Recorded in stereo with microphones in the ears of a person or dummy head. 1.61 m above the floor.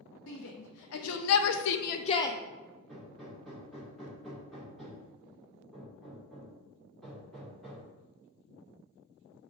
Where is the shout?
70° left (ahead or behind), 1.3 m; by 2.4 s 10° left (ahead or behind), 0.5 m.